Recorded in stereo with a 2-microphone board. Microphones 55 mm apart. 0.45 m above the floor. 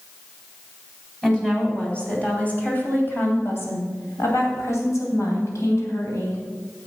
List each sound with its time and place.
1.2 s a woman speaking: 15° left (ahead or behind), 3.5 m; by 6.4 s 70° left (ahead or behind), 3.5 m